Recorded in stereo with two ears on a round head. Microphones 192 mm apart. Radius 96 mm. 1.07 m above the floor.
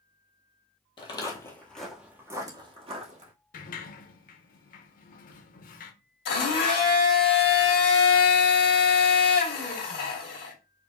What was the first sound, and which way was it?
Footsteps, 25° left (ahead or behind).